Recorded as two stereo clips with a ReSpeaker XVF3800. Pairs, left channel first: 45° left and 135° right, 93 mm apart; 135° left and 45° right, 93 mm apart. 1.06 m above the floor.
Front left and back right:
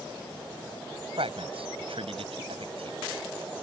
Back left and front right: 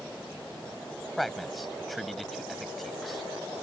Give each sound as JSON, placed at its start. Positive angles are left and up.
{"t": 1.2, "sound": "a man speaking", "azimuth_deg": -135}